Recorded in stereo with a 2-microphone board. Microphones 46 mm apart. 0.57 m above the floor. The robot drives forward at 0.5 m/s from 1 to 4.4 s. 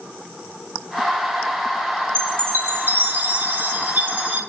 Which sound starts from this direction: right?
A chime, at 2.1 s.